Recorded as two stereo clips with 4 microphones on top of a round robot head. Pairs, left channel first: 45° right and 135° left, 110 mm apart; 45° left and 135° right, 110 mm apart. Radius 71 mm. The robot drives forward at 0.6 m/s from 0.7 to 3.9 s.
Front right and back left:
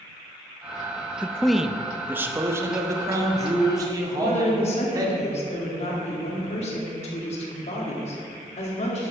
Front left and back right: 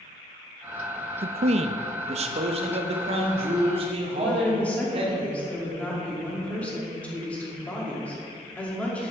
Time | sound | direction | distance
1.2 | a man speaking | 120° right | 0.5 m
4.1 | a woman speaking | 30° right | 2.5 m